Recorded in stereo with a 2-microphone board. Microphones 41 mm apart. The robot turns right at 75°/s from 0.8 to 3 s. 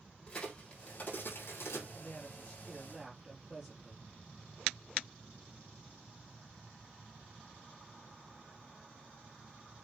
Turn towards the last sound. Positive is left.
turn(degrees=-160)